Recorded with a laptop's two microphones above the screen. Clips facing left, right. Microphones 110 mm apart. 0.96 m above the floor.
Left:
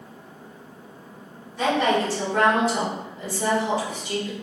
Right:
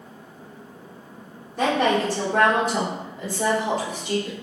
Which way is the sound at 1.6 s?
55° right (ahead or behind).